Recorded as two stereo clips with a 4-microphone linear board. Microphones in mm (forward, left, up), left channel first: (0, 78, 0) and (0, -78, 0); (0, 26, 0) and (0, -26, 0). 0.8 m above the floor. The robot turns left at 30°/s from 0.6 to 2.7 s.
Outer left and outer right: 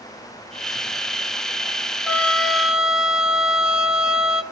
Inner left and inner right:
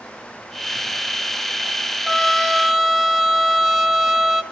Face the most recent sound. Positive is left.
turn(degrees=-5)  # may be behind; listen again after turning